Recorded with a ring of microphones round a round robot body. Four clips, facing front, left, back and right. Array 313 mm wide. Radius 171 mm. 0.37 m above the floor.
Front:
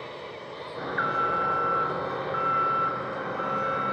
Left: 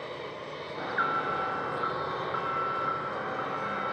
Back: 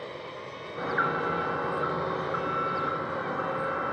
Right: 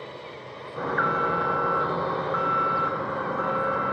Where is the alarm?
95° right, 2.5 m.